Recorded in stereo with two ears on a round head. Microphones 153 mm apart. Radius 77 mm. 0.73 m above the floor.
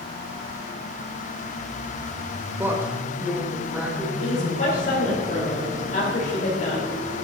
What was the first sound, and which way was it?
A woman speaking, 15° right (ahead or behind).